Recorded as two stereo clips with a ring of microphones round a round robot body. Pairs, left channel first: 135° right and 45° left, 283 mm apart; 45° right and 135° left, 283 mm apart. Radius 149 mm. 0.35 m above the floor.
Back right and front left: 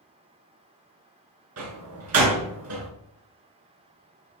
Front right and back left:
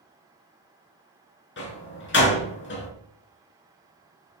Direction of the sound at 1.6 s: 5° left.